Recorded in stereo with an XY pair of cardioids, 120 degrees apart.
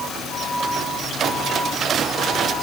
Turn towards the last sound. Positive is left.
No sound to turn to.